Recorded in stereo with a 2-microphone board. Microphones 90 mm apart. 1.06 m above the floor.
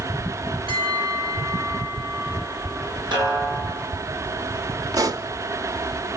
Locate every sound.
0.7 s a bell: 85° right, 5 m
3.1 s a snare drum: 60° right (ahead or behind), 9.5 m
4.9 s a pop: 45° right (ahead or behind), 0.9 m